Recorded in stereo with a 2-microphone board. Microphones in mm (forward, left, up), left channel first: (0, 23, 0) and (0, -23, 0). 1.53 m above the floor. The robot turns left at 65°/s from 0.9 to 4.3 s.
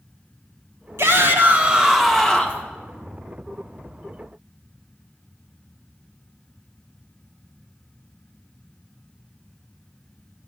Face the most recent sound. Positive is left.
turn(degrees=30)